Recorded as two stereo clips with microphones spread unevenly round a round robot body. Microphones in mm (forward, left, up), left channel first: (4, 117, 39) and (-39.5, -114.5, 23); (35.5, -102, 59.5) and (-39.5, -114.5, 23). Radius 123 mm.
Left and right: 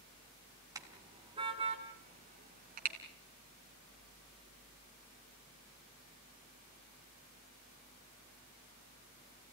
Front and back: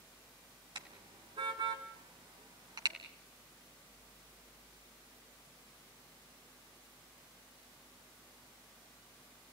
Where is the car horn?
175° right, 3 m; by 3.0 s 155° right, 3 m.